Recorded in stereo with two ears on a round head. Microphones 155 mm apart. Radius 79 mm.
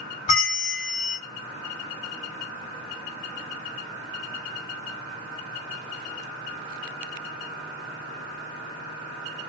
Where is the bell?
40° left (ahead or behind), 1.3 m.